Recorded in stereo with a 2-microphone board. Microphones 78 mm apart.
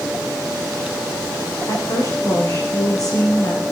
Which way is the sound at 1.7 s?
55° left (ahead or behind).